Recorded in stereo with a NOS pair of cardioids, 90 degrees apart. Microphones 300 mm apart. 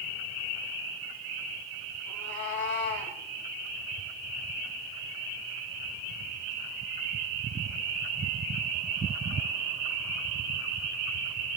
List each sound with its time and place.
2.1 s a cat meowing: 40° left, 5.5 m